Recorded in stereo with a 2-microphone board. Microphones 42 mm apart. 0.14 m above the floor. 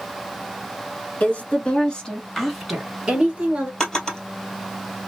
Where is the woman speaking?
40° left (ahead or behind), 1.4 m; by 3.7 s 30° right (ahead or behind), 1.3 m.